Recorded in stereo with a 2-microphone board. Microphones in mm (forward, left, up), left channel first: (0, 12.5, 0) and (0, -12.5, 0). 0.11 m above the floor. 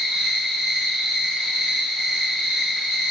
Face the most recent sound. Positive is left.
turn(degrees=-65)  # may be behind; listen again after turning